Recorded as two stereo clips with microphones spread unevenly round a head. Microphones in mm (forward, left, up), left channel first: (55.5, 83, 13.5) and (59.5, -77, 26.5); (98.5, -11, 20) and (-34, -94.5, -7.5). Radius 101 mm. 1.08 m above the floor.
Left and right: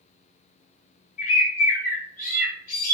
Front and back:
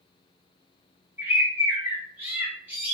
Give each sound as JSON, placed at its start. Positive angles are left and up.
{"t": 1.2, "sound": "a bird", "azimuth_deg": 135, "distance_m": 2.0}